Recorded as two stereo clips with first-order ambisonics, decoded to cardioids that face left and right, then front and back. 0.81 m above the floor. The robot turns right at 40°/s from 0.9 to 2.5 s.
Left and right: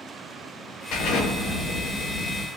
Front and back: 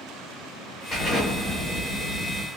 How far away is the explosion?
About 3 m.